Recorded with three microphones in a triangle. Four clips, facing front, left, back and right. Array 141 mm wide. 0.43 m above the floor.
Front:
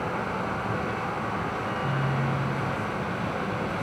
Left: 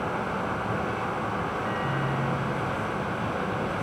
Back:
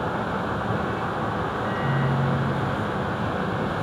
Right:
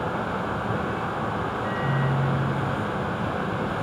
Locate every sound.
1.6 s a microwave: 155° right, 6.5 m